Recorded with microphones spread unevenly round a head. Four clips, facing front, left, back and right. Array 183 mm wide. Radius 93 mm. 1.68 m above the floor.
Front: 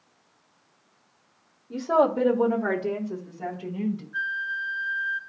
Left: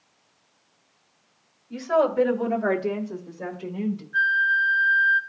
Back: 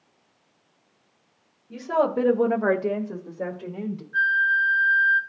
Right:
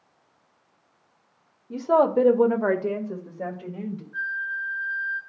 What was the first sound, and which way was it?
A woman speaking, 75° right.